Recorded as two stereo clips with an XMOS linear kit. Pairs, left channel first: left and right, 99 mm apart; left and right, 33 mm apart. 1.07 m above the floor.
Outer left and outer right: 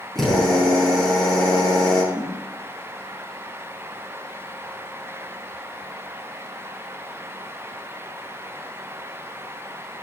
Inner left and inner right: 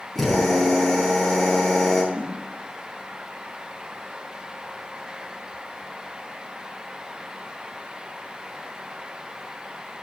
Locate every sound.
0.1 s a drill: 5° left (ahead or behind), 6.5 m
2.1 s a whoosh: 50° right (ahead or behind), 6 m